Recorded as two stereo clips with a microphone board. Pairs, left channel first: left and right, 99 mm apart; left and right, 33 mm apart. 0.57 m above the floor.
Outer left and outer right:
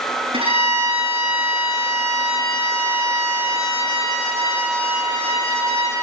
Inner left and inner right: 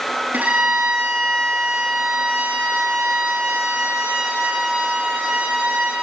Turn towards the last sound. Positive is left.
turn(degrees=-75)  # may be behind; listen again after turning